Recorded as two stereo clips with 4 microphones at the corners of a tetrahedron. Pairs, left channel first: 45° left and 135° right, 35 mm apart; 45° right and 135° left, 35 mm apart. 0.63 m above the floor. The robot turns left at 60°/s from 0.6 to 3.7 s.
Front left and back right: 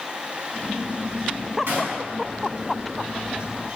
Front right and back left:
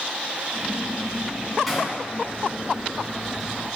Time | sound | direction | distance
1.7 | a gunshot | 140° right | 3 m